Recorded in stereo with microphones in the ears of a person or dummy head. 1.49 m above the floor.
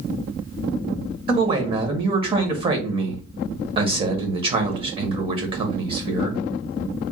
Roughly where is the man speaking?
Right.